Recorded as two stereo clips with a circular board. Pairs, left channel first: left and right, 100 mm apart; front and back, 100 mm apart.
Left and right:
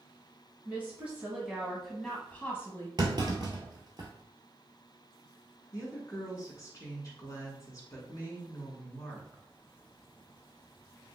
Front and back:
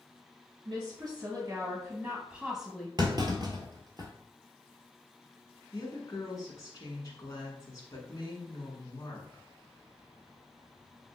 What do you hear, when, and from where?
0.7 s a woman speaking: 155° right, 1.7 m; by 2.9 s 80° left, 1.2 m
3.0 s a clunk: 135° right, 1.1 m
5.7 s a woman speaking: 45° left, 1.6 m